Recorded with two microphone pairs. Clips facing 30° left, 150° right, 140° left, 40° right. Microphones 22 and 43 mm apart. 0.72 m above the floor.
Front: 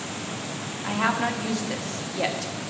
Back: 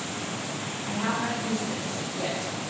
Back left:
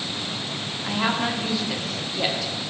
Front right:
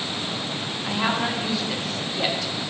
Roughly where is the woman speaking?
Ahead left.